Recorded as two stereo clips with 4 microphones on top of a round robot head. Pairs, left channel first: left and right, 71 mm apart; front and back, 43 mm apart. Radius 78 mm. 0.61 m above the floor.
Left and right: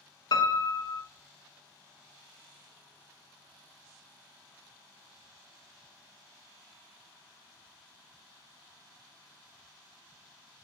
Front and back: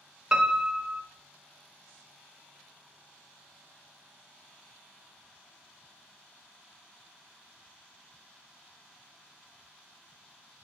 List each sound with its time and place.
0.3 s a piano: 110° left, 0.9 m